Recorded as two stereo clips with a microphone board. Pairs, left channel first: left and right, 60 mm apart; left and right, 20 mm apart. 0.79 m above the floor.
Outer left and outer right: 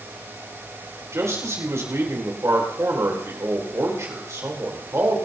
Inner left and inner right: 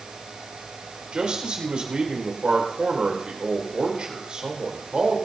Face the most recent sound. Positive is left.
turn(degrees=-55)  # may be behind; listen again after turning